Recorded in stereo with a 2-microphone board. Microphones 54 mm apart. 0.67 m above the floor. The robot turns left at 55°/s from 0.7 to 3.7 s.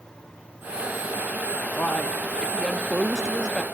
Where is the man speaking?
65° left, 0.7 m; by 3.6 s 35° right, 0.7 m.